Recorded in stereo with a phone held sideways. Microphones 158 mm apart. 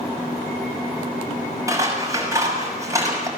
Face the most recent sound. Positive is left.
turn(degrees=-20)  # may be behind; listen again after turning